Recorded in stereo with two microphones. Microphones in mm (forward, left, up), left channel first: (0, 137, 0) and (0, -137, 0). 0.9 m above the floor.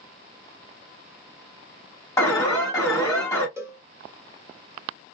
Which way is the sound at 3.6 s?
10° right (ahead or behind).